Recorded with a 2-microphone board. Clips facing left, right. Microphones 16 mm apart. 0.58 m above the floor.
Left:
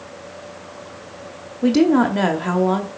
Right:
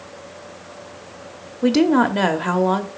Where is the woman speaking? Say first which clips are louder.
Left 1 dB; 15° right (ahead or behind), 0.8 m.